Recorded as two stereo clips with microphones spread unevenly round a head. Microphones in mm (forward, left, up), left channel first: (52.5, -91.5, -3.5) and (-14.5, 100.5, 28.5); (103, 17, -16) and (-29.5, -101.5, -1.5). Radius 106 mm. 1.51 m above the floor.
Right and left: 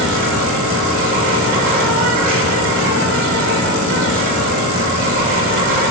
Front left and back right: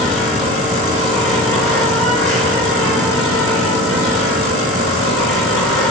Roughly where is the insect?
Left.